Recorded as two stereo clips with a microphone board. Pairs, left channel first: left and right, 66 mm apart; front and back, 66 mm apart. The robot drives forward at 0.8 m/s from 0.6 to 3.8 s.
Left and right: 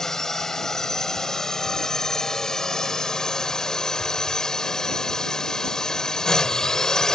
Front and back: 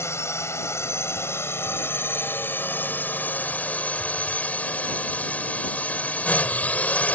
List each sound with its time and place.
0.0 s a drone: 10° left; by 7.2 s 20° left